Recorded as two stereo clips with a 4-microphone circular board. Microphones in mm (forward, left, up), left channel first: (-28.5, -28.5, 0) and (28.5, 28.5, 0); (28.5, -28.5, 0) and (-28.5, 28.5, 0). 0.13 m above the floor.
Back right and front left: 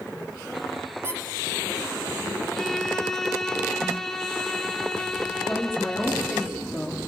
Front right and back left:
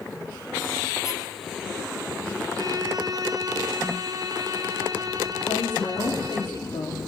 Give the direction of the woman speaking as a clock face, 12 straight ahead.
1 o'clock.